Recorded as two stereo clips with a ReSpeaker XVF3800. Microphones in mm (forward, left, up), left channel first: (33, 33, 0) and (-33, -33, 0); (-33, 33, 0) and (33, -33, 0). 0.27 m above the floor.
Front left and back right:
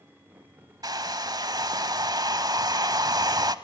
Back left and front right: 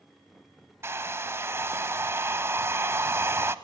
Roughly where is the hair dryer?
Right.